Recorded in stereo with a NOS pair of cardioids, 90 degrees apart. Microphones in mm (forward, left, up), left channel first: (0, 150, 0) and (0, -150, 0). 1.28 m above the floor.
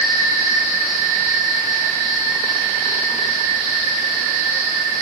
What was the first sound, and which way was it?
Only background noise.